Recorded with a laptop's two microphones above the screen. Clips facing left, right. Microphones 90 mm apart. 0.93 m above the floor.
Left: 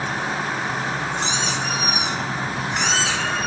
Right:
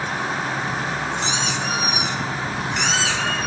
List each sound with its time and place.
1.2 s a squeak: 40° left (ahead or behind), 2 m